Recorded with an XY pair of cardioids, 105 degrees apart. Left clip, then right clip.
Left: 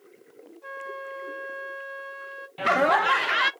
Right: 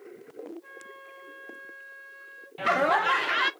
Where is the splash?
No splash in this recording.